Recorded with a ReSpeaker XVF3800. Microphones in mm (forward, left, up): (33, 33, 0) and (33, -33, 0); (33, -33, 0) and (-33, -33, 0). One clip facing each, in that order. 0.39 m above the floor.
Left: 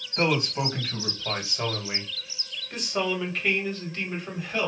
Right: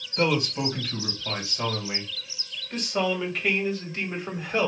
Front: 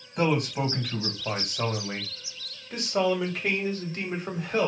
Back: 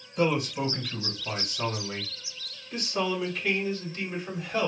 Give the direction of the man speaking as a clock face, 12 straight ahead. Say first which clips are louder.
Even, front 1 dB; 11 o'clock.